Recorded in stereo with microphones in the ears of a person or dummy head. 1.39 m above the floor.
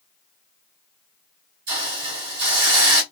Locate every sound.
1.7 s a hiss: 40° right (ahead or behind), 1.6 m